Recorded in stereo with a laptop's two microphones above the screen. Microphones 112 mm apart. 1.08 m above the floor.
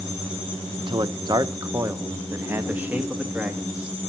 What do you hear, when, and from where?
0.8 s a man speaking: 50° right (ahead or behind), 0.8 m; by 4.0 s 5° right (ahead or behind), 2.5 m